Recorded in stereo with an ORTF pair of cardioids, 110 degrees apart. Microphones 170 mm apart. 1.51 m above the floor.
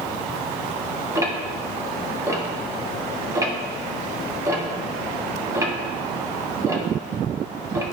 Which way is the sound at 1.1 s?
20° right.